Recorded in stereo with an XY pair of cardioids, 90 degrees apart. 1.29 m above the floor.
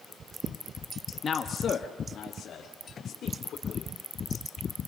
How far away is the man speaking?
About 1.6 m.